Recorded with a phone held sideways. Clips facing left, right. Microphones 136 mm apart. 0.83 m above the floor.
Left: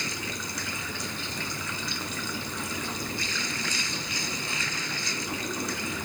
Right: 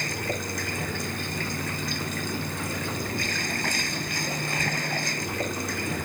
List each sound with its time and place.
0.0 s running water: 55° right (ahead or behind)